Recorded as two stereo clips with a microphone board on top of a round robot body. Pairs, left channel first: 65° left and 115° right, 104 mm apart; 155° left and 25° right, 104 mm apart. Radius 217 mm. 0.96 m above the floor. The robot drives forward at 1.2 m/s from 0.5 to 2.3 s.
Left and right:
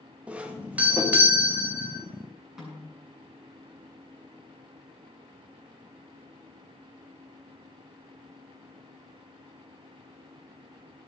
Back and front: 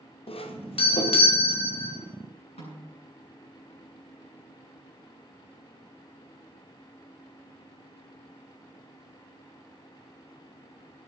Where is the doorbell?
170° left, 2.0 m; by 2.0 s 175° left, 3.5 m.